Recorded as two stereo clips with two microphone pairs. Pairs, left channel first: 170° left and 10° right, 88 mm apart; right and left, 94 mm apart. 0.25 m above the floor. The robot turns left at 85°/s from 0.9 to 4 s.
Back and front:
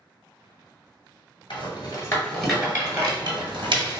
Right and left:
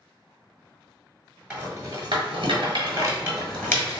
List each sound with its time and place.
1.5 s a rattle: 165° left, 0.9 m; by 4.0 s 45° right, 0.9 m